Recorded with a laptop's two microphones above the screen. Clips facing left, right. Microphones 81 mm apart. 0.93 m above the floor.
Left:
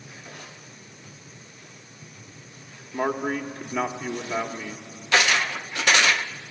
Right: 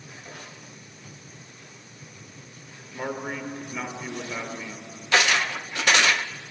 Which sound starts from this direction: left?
A man speaking, at 2.9 s.